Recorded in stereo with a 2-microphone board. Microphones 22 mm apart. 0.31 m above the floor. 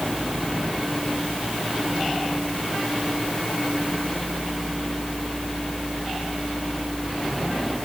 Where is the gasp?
I don't hear a gasp.